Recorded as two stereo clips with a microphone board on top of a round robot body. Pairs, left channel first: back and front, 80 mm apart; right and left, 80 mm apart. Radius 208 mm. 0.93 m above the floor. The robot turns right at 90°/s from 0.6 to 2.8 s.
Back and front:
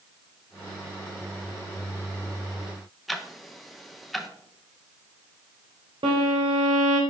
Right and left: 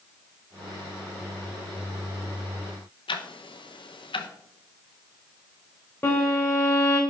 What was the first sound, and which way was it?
Ticking, 90° right.